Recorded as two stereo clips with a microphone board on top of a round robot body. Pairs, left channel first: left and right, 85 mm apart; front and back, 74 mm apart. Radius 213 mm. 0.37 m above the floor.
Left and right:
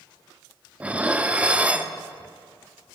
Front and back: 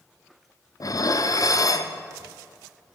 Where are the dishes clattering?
15° right, 0.9 m.